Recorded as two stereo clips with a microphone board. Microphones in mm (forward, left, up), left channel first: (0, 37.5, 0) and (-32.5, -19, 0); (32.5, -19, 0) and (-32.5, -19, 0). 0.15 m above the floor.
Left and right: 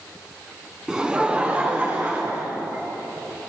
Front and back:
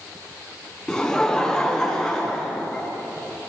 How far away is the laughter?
About 1.1 m.